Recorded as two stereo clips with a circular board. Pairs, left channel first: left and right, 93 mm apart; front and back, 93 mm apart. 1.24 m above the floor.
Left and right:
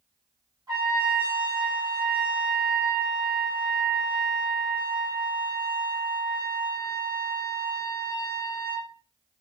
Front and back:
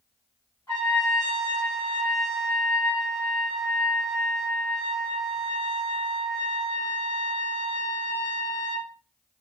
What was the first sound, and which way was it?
A trumpet, 55° right.